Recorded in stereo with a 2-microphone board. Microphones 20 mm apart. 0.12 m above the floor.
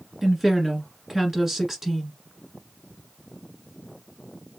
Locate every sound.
0.2 s a woman speaking: 15° right (ahead or behind), 1.6 m